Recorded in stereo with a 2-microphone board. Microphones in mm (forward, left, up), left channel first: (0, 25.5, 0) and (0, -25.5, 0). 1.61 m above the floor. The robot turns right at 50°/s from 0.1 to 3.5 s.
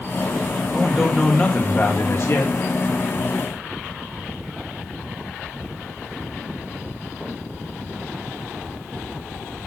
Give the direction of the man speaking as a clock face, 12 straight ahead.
1 o'clock.